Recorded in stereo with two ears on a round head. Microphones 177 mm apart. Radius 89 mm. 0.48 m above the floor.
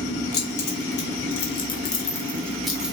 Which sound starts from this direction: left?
Keys jangling, at 0.3 s.